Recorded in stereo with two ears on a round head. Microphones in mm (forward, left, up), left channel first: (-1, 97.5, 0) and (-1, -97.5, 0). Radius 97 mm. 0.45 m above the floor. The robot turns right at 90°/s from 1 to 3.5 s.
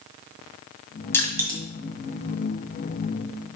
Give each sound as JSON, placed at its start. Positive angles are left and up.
{"t": 1.1, "sound": "crushing", "side_deg": 10, "distance_m": 1.8}